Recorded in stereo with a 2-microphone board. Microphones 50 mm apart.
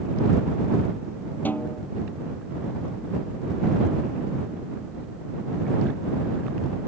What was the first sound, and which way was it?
A snare drum, 40° left (ahead or behind).